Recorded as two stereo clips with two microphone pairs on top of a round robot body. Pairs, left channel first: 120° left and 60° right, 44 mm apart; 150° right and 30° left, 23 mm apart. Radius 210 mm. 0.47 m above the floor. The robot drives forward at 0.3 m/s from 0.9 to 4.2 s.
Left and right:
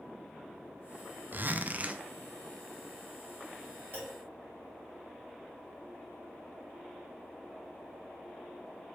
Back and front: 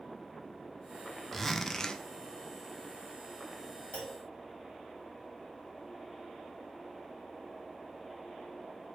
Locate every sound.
1.3 s a zipper: 75° right, 0.6 m; by 2.0 s 115° right, 0.6 m
3.9 s a clunk: 175° right, 1.9 m